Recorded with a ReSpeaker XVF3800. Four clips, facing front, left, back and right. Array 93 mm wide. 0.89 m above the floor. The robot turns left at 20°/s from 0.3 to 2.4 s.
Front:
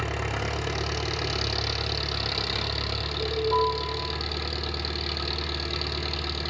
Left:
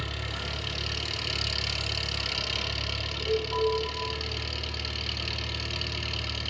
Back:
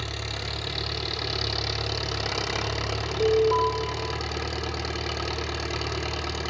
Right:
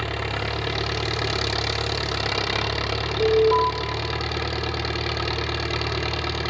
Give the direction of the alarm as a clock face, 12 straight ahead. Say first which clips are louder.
Right 10 dB, back 4 dB; 4 o'clock.